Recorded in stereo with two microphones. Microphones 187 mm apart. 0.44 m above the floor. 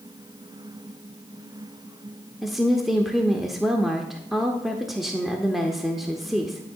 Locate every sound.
2.4 s a woman speaking: centre (ahead or behind), 0.8 m